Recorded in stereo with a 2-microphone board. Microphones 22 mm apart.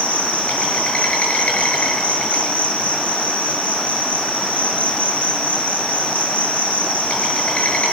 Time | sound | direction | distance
0.0 | an insect | 65° left (ahead or behind) | 8.5 m